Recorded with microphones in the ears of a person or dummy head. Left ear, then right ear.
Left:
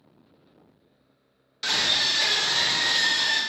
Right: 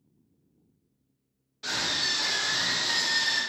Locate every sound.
1.6 s a scream: 65° left (ahead or behind), 1.3 m; by 3.4 s 40° left (ahead or behind), 1.0 m